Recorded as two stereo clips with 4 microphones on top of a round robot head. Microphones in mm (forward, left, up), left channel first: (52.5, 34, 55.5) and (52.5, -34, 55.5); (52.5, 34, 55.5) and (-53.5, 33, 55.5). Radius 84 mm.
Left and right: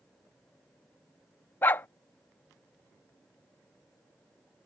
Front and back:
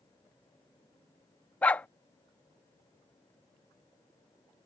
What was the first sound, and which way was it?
A dog barking, 65° left.